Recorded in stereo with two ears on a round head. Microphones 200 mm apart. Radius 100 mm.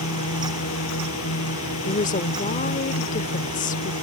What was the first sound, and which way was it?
A drone, 70° left (ahead or behind).